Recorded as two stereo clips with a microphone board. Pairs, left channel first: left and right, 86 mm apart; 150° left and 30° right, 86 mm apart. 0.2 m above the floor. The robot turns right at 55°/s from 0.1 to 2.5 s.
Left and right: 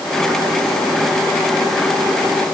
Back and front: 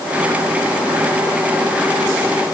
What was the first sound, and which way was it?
Only background noise.